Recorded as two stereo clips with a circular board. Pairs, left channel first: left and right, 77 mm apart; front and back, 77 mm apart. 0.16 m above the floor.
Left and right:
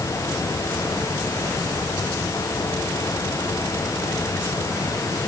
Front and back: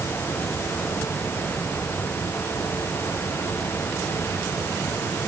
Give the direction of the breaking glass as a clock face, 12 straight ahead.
I don't hear breaking glass.